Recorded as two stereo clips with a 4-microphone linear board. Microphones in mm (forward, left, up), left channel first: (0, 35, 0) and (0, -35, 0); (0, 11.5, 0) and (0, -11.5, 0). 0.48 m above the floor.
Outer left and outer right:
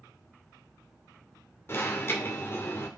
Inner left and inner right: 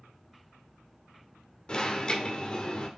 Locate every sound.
1.7 s an alarm: 35° left (ahead or behind), 2 m